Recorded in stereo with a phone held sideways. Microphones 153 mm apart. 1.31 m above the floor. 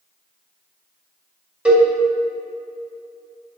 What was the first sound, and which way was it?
A cowbell, 10° right (ahead or behind).